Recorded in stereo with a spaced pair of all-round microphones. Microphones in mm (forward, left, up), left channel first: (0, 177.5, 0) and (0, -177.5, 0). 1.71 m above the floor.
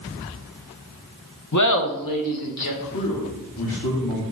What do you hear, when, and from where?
1.5 s laughter: 50° left (ahead or behind), 1.0 m; by 2.7 s 75° left (ahead or behind), 1.8 m
2.8 s a man speaking: 70° left (ahead or behind), 2.5 m